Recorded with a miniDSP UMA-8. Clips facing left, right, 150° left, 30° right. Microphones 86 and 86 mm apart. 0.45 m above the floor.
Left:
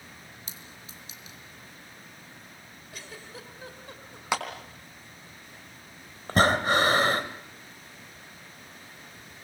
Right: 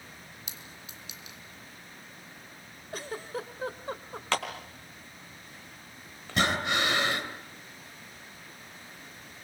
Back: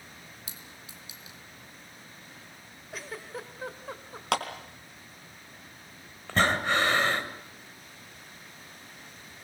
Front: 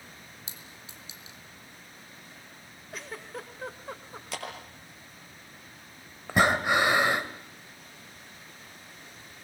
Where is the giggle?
120° right, 2 m.